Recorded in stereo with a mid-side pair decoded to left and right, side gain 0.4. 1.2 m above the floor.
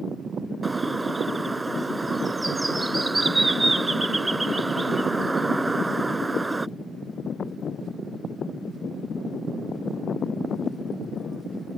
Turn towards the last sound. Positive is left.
turn(degrees=-25)